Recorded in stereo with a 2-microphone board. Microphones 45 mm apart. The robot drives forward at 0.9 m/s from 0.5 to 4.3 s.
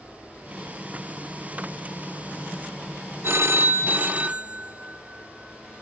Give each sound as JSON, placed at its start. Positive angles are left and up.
{"t": 0.0, "sound": "an aircraft", "side_deg": 50}
{"t": 3.2, "sound": "a phone ringing", "side_deg": -60}